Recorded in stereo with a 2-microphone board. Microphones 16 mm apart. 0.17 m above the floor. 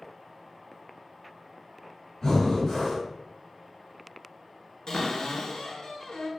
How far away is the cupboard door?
About 0.7 m.